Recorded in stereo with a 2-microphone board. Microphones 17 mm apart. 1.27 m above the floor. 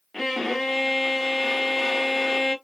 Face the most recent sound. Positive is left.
turn(degrees=5)  # may be behind; listen again after turning